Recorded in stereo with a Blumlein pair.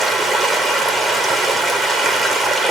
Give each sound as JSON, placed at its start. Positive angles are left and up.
{"t": 0.0, "sound": "running water", "azimuth_deg": -10, "distance_m": 1.4}